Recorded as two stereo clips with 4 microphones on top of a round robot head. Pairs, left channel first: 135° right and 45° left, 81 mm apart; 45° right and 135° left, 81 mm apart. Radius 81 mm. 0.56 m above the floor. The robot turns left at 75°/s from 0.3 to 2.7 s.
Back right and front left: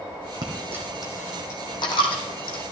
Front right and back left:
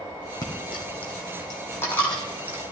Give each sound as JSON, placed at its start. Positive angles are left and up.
{"t": 0.4, "sound": "a dropped coin", "azimuth_deg": 5, "distance_m": 1.6}